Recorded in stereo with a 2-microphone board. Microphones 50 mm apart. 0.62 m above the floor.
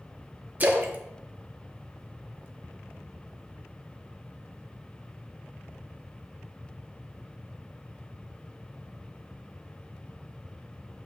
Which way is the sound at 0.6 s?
35° right (ahead or behind).